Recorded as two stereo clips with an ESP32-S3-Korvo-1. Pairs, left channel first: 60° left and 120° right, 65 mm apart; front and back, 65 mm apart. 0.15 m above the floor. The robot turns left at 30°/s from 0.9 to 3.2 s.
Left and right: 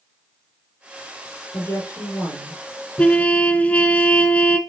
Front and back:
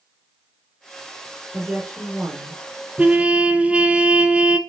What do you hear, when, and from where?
1.5 s a woman speaking: 115° left, 4 m; by 2.6 s 80° left, 4 m
3.0 s a trumpet: 125° left, 0.9 m; by 4.6 s 120° left, 0.9 m